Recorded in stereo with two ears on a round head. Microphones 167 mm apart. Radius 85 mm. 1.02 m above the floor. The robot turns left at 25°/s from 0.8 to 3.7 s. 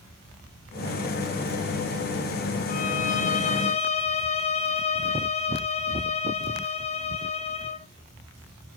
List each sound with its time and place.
2.7 s a violin: 45° left (ahead or behind), 0.9 m; by 7.9 s 35° left (ahead or behind), 0.9 m